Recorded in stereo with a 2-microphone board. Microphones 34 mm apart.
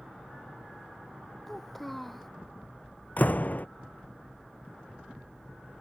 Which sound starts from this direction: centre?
A child speaking, at 1.5 s.